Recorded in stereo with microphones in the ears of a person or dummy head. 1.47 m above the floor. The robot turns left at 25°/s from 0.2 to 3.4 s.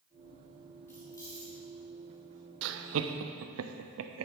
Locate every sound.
0.9 s keys jangling: 10° left (ahead or behind), 1.7 m; by 1.5 s 25° left (ahead or behind), 1.7 m
2.6 s laughter: 70° right (ahead or behind), 0.6 m; by 4.3 s 85° right, 0.6 m